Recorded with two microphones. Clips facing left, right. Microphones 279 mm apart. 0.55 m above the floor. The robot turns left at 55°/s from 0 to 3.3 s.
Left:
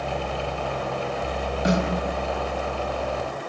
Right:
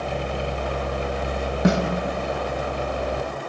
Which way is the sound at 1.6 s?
65° right (ahead or behind).